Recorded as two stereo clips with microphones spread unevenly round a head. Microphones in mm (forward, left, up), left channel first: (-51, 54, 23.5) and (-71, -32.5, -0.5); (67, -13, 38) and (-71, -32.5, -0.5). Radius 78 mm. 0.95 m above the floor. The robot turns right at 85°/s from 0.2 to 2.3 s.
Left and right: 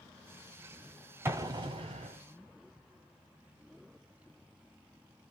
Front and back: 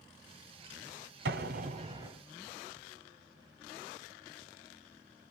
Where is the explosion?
170° right, 1.4 m; by 2.2 s 85° right, 1.4 m.